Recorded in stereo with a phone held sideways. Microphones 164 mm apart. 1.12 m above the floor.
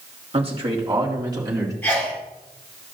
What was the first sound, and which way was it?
A man speaking, 40° right (ahead or behind).